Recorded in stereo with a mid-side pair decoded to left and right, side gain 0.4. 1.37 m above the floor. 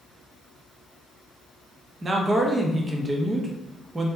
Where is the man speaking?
30° right, 0.7 m.